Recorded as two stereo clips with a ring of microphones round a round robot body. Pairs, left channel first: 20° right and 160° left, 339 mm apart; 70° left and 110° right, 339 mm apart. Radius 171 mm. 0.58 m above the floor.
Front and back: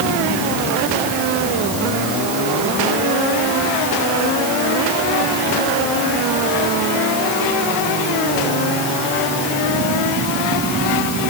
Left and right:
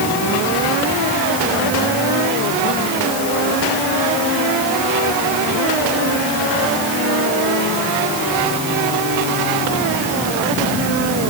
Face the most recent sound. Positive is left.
No sound to turn to.